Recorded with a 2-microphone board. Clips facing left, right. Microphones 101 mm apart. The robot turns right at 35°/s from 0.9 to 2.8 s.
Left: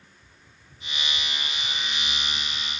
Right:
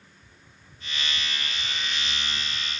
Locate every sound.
Only background noise.